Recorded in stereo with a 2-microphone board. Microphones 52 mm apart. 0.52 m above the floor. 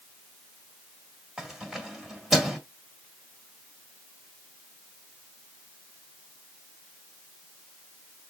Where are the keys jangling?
5° right (ahead or behind), 1.7 m.